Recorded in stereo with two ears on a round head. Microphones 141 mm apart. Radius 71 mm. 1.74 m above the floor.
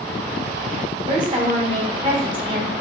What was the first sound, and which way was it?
A woman speaking, 35° right (ahead or behind).